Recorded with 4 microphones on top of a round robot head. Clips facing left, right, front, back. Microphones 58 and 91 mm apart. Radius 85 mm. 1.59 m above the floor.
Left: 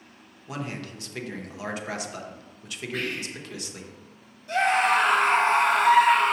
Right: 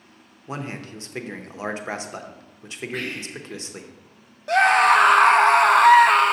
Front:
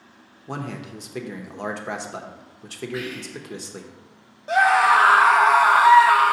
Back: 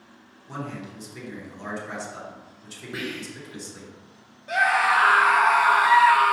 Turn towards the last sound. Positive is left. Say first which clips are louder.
# right 6 dB, front 5 dB
turn(degrees=-65)